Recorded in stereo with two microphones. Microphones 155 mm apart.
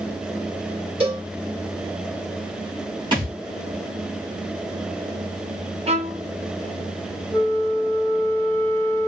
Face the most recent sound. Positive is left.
turn(degrees=15)  # may be behind; listen again after turning